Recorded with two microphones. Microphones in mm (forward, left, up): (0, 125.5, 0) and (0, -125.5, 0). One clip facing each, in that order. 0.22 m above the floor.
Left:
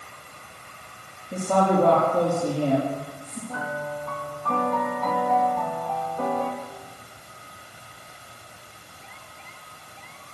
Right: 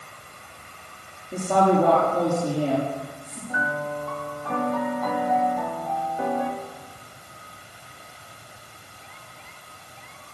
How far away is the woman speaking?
About 6.5 m.